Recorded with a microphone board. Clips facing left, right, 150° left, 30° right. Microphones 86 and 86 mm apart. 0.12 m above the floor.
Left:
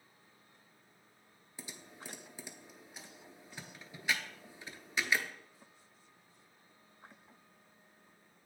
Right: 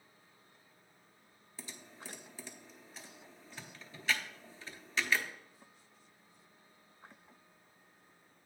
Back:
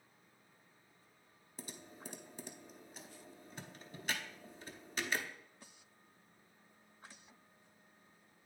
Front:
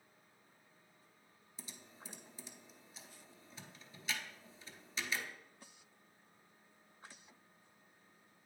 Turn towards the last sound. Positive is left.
turn(degrees=160)